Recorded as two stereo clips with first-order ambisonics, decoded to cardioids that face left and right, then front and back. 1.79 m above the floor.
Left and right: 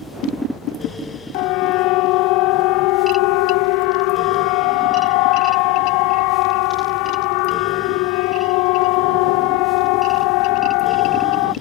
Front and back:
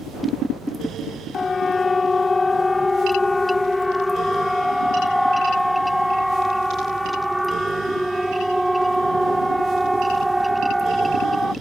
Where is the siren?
75° left; by 11.5 s 95° left.